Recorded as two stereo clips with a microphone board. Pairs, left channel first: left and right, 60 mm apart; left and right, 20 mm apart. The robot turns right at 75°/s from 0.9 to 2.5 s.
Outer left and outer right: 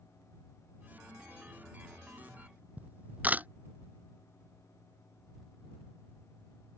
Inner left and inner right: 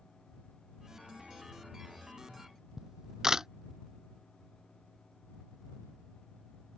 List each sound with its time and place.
2.8 s a camera shutter: 30° right (ahead or behind)